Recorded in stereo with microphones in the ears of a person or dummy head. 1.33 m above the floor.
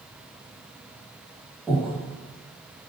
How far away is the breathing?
About 1.4 m.